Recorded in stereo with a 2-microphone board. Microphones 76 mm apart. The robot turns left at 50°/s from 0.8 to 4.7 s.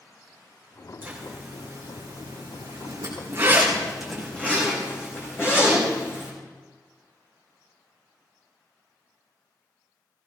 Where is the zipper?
30° right (ahead or behind), 6 m; by 6.3 s 30° left (ahead or behind), 6 m.